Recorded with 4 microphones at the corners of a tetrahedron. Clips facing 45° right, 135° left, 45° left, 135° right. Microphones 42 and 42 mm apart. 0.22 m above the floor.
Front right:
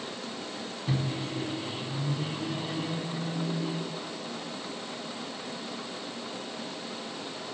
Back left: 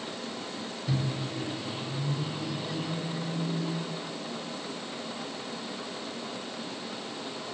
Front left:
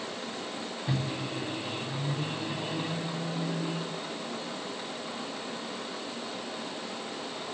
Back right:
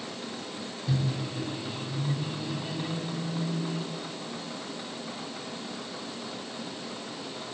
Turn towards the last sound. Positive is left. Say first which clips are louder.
# front right 1 dB, back right 2 dB
turn(degrees=5)